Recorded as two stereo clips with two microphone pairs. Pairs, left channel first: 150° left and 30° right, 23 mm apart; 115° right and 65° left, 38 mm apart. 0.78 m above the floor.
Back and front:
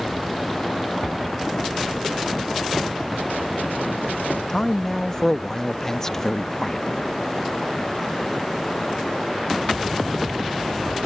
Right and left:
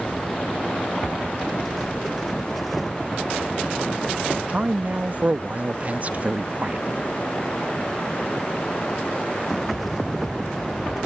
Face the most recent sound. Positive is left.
turn(degrees=85)